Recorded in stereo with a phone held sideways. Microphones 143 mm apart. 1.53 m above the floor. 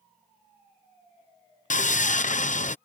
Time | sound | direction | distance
1.7 | sawing | 70° left (ahead or behind) | ?